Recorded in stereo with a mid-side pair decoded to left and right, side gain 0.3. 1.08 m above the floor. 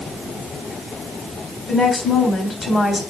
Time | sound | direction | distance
1.7 | a woman speaking | 55° left | 3 m